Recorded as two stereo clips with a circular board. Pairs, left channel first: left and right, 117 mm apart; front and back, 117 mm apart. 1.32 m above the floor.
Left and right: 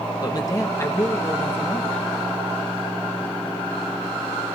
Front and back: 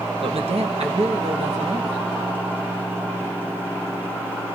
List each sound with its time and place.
0.2 s a man speaking: 145° left, 1.2 m; by 2.1 s 165° left, 2.5 m